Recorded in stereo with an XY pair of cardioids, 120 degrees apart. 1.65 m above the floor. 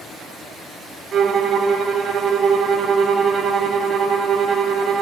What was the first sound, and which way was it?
A violin, 50° right.